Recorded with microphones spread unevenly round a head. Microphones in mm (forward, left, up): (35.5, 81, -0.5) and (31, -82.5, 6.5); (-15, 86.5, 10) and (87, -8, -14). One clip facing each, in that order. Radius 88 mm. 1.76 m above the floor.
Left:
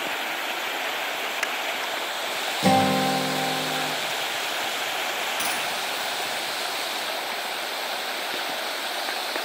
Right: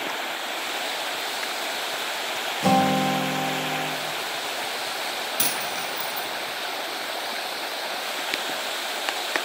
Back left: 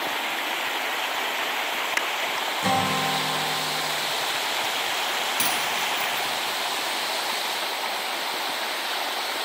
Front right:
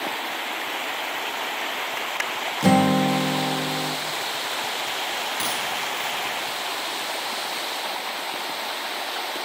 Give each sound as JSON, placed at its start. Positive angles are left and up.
{"t": 2.6, "sound": "a guitar", "azimuth_deg": 5, "distance_m": 2.5}
{"t": 5.4, "sound": "a dropped coin", "azimuth_deg": -150, "distance_m": 5.0}